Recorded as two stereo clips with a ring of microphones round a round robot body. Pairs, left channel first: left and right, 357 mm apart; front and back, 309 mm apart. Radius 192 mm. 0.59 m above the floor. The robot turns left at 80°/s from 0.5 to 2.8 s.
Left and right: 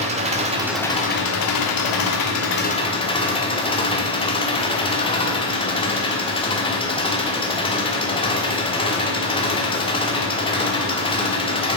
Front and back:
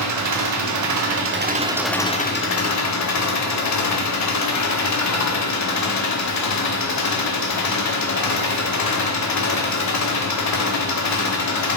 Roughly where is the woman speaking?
No woman speaking in this recording.